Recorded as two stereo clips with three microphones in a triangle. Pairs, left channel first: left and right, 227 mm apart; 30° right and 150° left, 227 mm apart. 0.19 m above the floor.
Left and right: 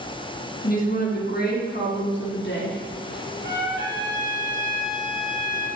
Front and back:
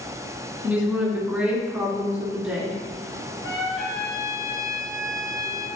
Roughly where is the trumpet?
Ahead right.